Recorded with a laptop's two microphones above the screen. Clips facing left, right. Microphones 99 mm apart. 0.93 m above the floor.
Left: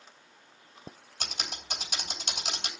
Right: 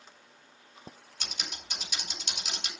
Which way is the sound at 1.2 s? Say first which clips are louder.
Left 3 dB; 45° left (ahead or behind).